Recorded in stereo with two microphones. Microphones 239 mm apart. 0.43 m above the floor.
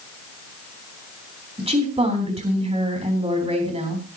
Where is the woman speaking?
25° right (ahead or behind), 4 m.